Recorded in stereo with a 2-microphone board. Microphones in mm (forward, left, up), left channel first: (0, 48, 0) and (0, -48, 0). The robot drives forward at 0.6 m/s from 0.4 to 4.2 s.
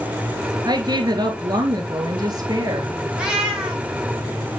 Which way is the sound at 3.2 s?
10° right (ahead or behind).